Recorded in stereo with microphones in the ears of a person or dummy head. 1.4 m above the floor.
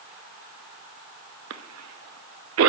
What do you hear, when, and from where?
1.5 s a cough: 85° right, 0.8 m